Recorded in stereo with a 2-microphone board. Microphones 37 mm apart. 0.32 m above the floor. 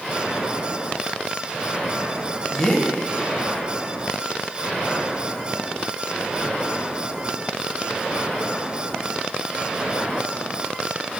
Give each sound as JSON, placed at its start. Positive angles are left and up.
{"t": 2.5, "sound": "a man speaking", "side_deg": 15, "distance_m": 1.4}